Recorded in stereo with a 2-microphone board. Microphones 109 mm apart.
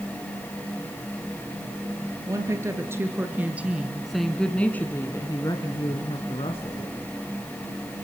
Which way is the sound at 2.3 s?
30° right (ahead or behind).